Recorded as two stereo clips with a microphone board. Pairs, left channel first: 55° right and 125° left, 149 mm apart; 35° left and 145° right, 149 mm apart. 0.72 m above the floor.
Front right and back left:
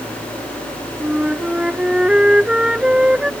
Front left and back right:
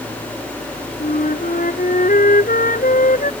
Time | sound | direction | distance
1.0 | a flute | 40° left | ?